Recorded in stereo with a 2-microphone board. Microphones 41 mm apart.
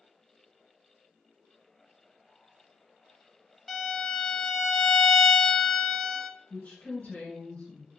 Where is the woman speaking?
40° left (ahead or behind), 1.9 m.